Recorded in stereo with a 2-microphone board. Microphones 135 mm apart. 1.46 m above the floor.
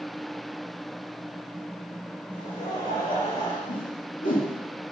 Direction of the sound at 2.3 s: 85° left.